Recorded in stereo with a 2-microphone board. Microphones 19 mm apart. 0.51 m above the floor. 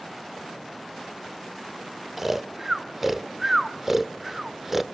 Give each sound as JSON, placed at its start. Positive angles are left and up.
{"t": 2.2, "sound": "snoring", "side_deg": -15, "distance_m": 0.7}